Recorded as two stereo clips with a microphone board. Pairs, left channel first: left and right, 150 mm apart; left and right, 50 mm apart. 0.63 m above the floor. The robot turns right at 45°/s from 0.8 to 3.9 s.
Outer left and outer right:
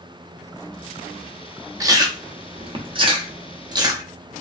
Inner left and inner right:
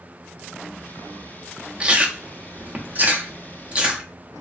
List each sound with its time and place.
1.8 s chewing: 20° right (ahead or behind), 0.6 m; by 4.0 s 25° right (ahead or behind), 0.6 m